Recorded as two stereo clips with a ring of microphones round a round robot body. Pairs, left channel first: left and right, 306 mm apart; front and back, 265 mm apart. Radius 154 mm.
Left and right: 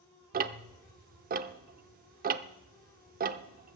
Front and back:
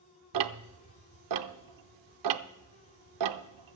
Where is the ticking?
155° right, 0.6 m.